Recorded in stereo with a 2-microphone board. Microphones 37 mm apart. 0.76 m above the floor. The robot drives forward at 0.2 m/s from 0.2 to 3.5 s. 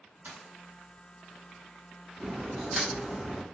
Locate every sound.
0.2 s a dropped coin: 60° right (ahead or behind), 1.6 m
2.2 s a crack: 10° right (ahead or behind), 0.7 m